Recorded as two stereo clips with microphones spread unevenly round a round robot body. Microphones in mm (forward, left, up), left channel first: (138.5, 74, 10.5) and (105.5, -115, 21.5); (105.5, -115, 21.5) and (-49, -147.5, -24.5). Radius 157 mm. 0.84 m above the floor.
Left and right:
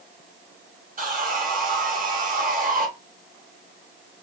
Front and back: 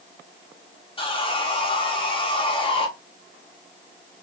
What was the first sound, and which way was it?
Sawing, 50° right.